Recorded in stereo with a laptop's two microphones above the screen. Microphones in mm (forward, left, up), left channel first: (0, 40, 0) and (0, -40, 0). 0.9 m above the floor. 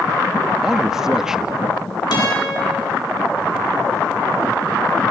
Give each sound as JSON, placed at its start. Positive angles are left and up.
{"t": 0.6, "sound": "a man speaking", "side_deg": -5, "distance_m": 1.0}
{"t": 2.1, "sound": "a guitar", "side_deg": 60, "distance_m": 8.0}